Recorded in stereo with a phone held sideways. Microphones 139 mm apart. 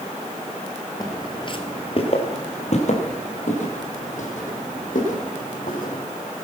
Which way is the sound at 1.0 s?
25° left (ahead or behind).